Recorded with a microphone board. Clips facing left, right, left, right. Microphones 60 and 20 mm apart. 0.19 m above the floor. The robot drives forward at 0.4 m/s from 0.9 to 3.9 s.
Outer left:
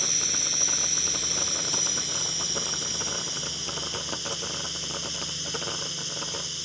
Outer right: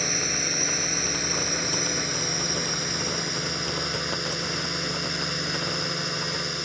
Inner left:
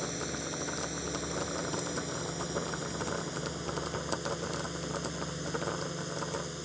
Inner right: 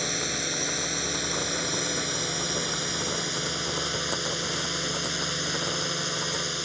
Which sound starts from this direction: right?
A drone, at 0.0 s.